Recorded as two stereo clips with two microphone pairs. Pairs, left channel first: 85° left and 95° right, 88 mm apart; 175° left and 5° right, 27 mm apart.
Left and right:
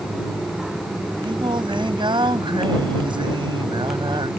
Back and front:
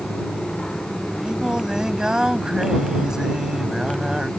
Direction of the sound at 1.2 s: 70° right.